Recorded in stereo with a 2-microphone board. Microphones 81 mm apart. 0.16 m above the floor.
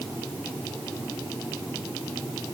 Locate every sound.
Only background noise.